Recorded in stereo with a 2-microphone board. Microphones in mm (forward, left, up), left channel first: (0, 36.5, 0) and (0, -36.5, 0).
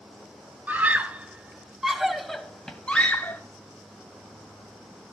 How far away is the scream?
About 2 m.